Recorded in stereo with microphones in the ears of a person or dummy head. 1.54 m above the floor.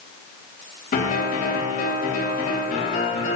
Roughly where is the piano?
Left.